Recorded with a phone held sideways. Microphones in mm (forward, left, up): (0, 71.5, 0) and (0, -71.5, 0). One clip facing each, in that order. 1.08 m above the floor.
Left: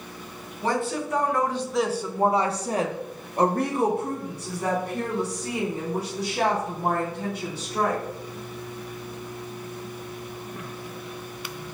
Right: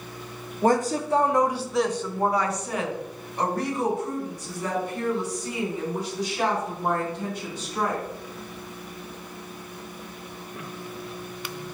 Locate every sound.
0.6 s a woman speaking: 50° right (ahead or behind), 0.8 m; by 8.0 s 70° left (ahead or behind), 3.5 m